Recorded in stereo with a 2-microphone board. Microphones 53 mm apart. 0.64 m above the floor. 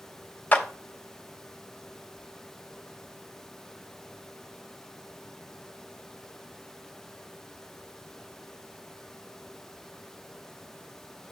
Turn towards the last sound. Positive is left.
turn(degrees=35)  # may be behind; listen again after turning